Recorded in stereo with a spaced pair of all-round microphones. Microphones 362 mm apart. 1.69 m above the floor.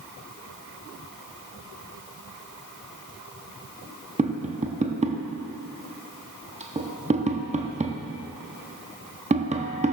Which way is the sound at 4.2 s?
20° right (ahead or behind).